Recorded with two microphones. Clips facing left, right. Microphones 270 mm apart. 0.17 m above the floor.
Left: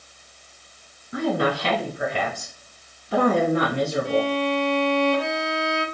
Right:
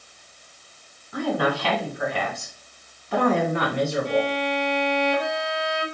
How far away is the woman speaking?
About 1.6 m.